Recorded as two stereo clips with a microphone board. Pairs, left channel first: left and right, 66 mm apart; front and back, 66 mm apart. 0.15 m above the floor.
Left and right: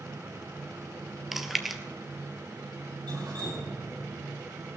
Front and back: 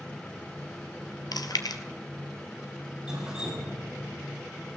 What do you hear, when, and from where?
1.3 s chewing: 5° right, 1.1 m
3.1 s dripping: 100° right, 5 m